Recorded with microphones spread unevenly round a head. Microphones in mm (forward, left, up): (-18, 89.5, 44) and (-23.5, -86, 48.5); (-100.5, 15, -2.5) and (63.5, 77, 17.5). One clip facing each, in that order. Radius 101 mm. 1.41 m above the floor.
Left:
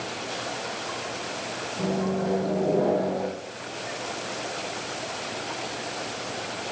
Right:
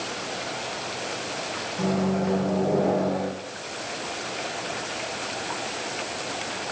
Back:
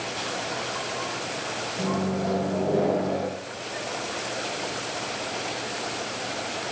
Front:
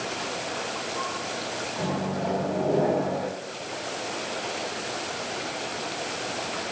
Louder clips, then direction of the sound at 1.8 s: Right 2 dB, back 2 dB; 90° right.